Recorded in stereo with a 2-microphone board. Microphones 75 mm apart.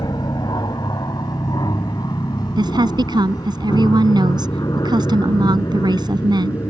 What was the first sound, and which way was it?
An aircraft, 65° left (ahead or behind).